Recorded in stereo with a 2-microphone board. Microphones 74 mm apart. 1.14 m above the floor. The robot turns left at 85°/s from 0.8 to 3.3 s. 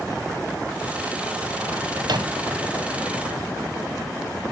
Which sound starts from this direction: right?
A microwave, at 2.0 s.